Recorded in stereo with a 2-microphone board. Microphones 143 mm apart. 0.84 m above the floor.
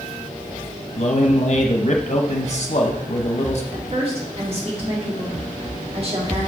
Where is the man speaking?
50° left (ahead or behind), 0.7 m.